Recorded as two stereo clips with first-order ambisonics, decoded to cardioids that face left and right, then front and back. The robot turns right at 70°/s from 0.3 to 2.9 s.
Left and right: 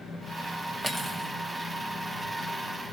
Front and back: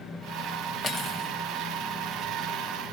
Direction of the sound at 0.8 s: 10° right.